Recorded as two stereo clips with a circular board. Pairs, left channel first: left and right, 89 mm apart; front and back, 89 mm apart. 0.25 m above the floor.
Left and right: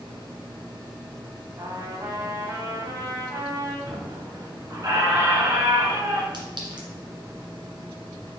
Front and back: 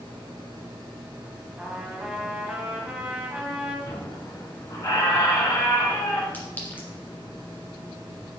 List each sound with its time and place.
1.6 s a trumpet: 105° right, 1.2 m
3.9 s a squeak: 45° right, 1.8 m
6.3 s a clink: 70° right, 1.8 m